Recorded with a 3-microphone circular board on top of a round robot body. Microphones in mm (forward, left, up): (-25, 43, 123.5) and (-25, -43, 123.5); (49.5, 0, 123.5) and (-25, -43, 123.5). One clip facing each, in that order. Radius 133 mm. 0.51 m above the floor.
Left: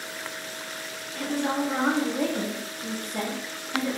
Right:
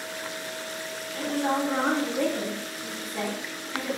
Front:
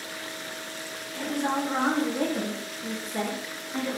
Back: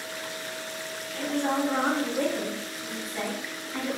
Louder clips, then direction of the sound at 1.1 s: Right 1 dB, back 1 dB; 40° right.